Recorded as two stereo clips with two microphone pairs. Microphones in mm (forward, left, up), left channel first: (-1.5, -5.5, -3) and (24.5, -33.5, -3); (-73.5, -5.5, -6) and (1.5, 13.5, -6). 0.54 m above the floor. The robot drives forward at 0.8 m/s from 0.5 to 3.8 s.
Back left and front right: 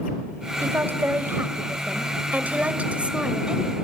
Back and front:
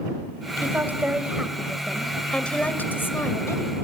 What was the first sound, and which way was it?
A woman speaking, 50° right.